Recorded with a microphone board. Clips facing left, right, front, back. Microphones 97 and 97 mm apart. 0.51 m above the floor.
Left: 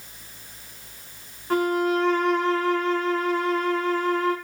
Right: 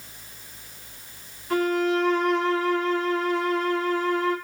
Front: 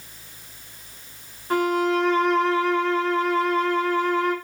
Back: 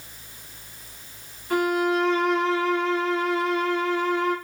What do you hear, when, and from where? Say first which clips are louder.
1.5 s a violin: left 1 dB, front 1 dB; 45° left, 1.0 m